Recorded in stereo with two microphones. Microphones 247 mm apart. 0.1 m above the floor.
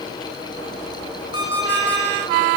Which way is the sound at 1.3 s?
60° left (ahead or behind).